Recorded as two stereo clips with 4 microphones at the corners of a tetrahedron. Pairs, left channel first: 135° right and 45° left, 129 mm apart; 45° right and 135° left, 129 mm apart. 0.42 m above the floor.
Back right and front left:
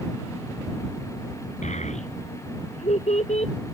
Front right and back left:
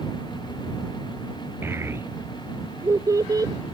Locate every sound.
1.6 s a child speaking: 155° right; by 3.5 s 165° right